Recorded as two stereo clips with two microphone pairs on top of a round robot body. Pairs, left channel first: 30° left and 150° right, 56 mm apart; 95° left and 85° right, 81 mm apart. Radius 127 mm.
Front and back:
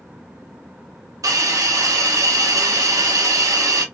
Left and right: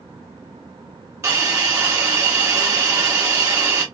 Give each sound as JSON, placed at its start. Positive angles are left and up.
{"t": 1.2, "sound": "a hiss", "azimuth_deg": -140, "distance_m": 0.9}